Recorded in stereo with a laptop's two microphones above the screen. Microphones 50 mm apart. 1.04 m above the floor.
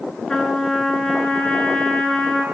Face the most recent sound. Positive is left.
turn(degrees=15)  # may be behind; listen again after turning